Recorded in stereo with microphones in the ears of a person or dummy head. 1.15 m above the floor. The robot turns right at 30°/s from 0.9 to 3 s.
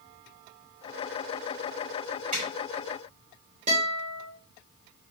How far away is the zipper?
About 2 m.